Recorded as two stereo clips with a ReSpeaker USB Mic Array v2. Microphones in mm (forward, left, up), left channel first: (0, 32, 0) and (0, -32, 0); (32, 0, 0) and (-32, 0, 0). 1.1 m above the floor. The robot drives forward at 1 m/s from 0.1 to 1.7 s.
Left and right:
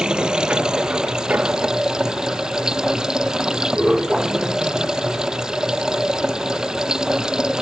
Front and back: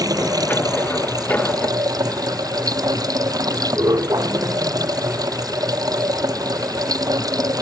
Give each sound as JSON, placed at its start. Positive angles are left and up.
{"t": 0.0, "sound": "running water", "azimuth_deg": -165}